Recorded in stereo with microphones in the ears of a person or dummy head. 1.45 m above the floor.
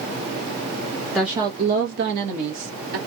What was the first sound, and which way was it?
A woman speaking, centre (ahead or behind).